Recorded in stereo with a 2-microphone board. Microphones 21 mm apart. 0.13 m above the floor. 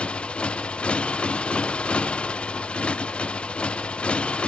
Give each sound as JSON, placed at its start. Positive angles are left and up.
{"t": 0.0, "sound": "a motorcycle", "side_deg": 60}